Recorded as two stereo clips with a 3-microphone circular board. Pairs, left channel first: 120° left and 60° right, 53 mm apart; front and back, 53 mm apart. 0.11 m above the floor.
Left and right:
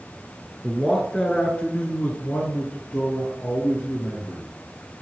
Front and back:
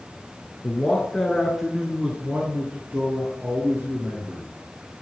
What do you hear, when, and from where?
0.6 s a man speaking: 45° left, 1.3 m; by 4.5 s 170° left, 2 m